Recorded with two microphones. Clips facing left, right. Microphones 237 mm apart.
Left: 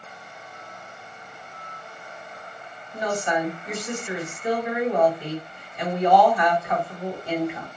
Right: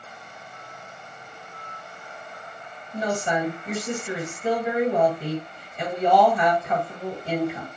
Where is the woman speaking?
30° right (ahead or behind), 1.8 m.